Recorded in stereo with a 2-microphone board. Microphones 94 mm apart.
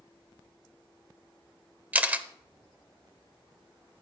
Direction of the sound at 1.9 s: 15° right (ahead or behind).